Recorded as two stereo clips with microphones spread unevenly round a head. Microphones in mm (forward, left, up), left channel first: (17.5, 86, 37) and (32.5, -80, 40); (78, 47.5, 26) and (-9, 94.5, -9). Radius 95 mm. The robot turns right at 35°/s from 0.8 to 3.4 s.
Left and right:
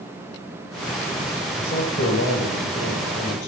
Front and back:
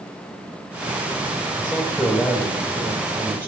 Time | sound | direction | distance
1.6 | a man speaking | 45° left | 4 m